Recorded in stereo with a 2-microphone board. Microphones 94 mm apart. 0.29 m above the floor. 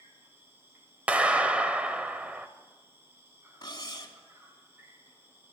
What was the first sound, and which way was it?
An insect, 25° right (ahead or behind).